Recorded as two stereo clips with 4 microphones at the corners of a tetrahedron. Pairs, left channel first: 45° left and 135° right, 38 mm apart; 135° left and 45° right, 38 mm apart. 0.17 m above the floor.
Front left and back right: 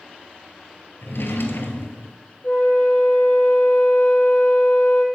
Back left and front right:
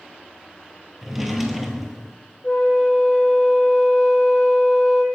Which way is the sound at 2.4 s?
75° left.